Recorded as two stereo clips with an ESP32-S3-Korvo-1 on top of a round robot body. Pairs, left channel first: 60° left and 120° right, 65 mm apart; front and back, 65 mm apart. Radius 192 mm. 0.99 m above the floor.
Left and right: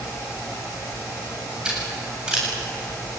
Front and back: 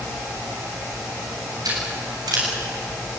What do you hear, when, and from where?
1.6 s scissors: 165° left, 8.5 m